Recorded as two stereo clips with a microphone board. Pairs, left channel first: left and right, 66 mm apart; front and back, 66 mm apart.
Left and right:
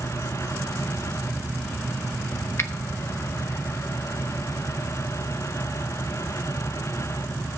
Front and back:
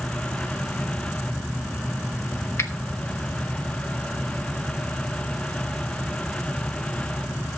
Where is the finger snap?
45° left, 1.1 m.